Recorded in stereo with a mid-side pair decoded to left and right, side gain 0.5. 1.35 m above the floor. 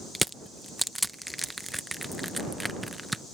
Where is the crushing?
5° right.